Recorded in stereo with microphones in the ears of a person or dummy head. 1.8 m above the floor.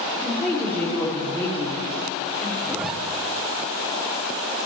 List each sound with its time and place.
0.1 s a woman speaking: 15° left (ahead or behind), 4 m
2.6 s a zipper: 5° left (ahead or behind), 1.0 m